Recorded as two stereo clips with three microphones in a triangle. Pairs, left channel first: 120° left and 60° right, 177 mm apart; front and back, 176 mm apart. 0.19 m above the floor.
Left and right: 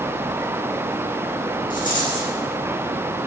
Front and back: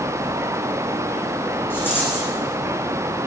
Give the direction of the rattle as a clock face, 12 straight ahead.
9 o'clock.